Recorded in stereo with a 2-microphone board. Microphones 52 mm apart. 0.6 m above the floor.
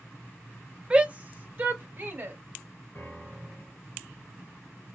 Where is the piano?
35° left (ahead or behind), 3 m.